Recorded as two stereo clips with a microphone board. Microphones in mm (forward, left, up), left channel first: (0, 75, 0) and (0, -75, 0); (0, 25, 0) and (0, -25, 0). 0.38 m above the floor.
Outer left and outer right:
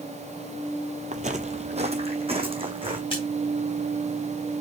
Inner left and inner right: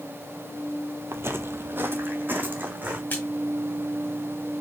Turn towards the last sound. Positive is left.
turn(degrees=35)  # may be behind; listen again after turning